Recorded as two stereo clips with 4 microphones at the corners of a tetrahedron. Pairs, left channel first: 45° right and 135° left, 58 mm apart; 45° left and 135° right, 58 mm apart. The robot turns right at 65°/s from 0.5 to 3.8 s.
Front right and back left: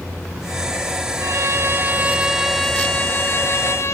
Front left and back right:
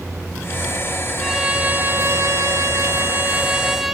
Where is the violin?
140° left, 0.8 m; by 4.0 s 50° right, 0.8 m.